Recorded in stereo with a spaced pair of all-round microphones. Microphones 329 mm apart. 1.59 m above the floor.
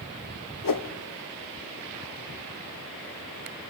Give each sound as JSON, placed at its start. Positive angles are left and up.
{"t": 0.6, "sound": "a whoosh", "side_deg": 80, "distance_m": 0.7}